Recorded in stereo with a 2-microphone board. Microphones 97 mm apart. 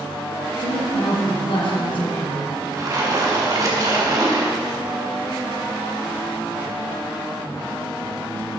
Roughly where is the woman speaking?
Left.